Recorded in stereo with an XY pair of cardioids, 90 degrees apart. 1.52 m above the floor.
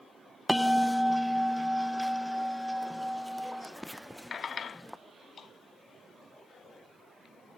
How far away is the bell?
About 0.9 m.